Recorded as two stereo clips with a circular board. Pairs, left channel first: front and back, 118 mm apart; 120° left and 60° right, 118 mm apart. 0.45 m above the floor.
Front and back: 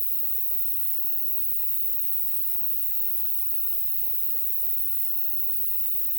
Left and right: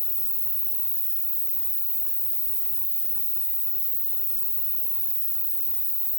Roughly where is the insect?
Right.